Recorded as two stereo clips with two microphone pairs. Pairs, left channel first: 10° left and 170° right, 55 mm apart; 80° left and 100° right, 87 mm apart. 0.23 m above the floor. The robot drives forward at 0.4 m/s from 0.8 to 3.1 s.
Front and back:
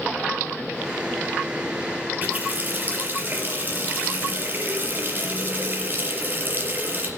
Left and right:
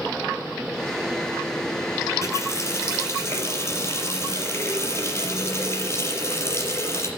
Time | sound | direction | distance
2.2 | a running tap | 135° left | 4 m